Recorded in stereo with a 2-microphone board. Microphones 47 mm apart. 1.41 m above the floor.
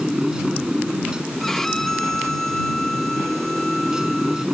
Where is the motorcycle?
15° right (ahead or behind).